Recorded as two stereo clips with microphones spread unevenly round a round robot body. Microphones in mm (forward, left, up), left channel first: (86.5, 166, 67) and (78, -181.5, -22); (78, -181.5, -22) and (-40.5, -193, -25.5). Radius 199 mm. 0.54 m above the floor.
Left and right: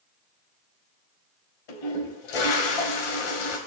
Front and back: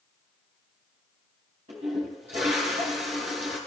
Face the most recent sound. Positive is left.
turn(degrees=115)